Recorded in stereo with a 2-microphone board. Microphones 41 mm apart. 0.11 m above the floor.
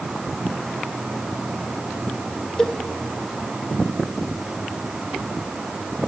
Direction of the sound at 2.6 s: 10° left (ahead or behind).